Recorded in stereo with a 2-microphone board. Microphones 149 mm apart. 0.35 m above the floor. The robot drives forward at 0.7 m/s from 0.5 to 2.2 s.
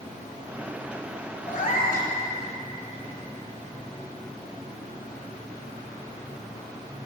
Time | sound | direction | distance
1.5 | a cat meowing | 60° left (ahead or behind) | 1.4 m